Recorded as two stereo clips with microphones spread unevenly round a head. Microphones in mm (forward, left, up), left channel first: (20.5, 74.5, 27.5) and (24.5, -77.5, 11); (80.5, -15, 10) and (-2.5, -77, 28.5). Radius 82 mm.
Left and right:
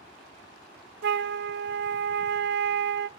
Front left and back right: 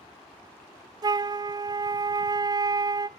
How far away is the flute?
About 1.1 m.